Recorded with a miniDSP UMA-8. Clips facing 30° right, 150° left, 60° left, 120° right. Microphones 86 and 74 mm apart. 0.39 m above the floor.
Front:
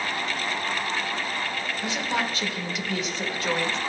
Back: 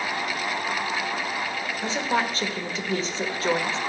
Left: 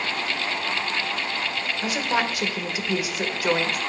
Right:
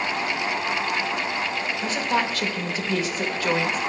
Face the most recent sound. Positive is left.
turn(degrees=125)